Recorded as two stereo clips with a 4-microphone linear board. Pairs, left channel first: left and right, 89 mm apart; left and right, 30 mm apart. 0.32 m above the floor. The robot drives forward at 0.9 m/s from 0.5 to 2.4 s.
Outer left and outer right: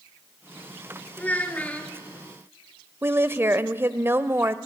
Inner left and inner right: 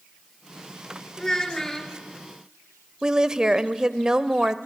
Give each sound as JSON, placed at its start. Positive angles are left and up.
{"t": 1.2, "sound": "a child speaking", "side_deg": 15, "distance_m": 3.5}
{"t": 3.0, "sound": "a woman speaking", "side_deg": -25, "distance_m": 0.9}